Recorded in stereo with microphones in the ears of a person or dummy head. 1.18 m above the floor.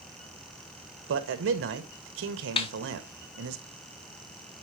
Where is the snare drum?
30° left (ahead or behind), 0.8 m.